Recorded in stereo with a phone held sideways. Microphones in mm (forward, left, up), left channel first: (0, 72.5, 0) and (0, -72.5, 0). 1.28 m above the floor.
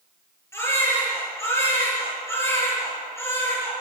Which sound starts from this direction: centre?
A baby crying, at 0.5 s.